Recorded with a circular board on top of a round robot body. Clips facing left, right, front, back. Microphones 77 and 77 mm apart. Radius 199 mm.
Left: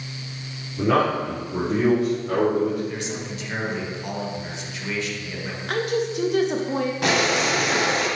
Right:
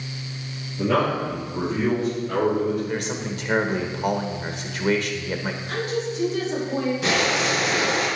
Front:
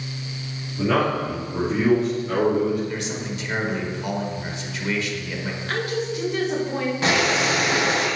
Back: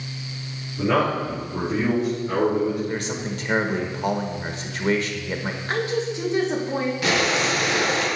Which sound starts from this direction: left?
A man speaking, at 0.8 s.